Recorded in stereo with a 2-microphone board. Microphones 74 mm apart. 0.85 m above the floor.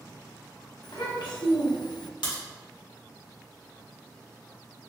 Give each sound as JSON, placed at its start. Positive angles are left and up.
{"t": 0.8, "sound": "a child speaking", "side_deg": 80, "distance_m": 1.1}
{"t": 2.2, "sound": "a crack", "side_deg": 85, "distance_m": 1.4}